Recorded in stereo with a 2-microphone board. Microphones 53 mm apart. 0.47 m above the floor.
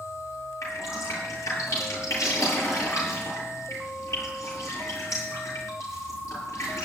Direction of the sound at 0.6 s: 70° left (ahead or behind).